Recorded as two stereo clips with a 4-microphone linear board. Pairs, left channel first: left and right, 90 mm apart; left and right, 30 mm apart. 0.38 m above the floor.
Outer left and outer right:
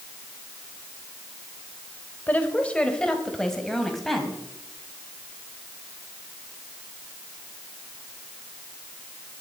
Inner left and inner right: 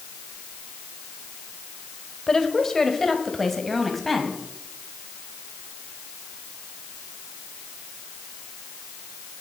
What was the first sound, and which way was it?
A woman speaking, 20° left (ahead or behind).